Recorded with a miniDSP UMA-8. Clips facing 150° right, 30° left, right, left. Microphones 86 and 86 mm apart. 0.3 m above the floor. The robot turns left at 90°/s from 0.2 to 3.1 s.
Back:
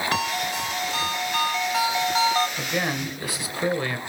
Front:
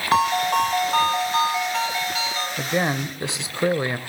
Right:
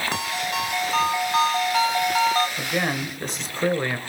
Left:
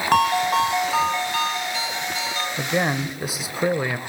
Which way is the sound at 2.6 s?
70° left.